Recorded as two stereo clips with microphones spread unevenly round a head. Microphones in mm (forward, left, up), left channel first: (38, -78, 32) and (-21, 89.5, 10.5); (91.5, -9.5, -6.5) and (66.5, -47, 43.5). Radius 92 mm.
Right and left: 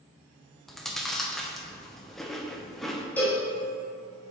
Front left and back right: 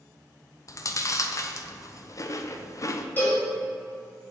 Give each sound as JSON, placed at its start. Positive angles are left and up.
{"t": 0.7, "sound": "chewing", "azimuth_deg": 15, "distance_m": 0.6}
{"t": 3.2, "sound": "a cowbell", "azimuth_deg": -120, "distance_m": 1.1}